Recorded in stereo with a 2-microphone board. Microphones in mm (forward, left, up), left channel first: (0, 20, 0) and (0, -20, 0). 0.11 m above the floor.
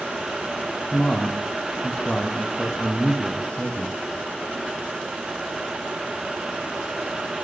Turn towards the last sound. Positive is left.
turn(degrees=25)  # may be behind; listen again after turning